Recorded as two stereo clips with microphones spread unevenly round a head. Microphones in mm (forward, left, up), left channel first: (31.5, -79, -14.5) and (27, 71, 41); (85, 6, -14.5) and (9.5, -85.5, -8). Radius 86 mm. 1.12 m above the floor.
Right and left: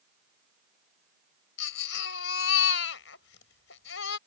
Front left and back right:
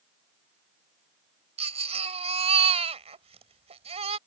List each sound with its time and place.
1.6 s a baby crying: 100° right